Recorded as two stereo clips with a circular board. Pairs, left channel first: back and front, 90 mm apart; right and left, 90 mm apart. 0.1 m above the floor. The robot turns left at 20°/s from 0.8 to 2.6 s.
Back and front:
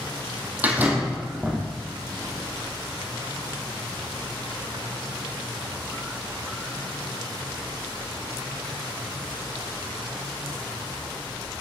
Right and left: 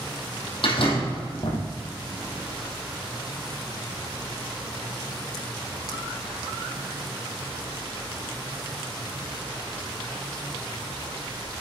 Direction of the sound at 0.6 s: 70° right.